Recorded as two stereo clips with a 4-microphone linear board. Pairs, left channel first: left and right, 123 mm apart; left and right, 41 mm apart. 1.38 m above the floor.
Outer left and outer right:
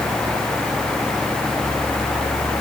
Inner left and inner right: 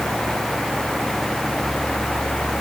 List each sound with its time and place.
Only background noise.